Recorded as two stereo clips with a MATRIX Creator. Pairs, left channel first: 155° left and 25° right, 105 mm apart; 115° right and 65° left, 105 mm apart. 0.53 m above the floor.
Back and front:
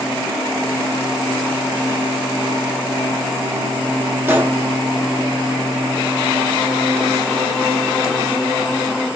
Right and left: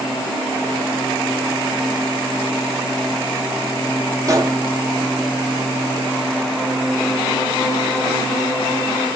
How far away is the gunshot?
About 0.7 m.